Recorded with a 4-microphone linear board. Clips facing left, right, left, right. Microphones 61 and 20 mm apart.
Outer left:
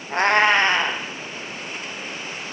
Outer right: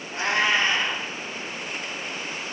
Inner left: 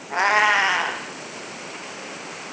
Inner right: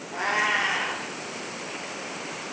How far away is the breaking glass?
I don't hear breaking glass.